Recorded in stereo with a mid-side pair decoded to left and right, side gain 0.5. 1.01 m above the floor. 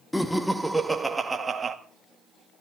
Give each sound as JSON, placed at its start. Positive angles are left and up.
{"t": 0.1, "sound": "laughter", "azimuth_deg": 5, "distance_m": 1.8}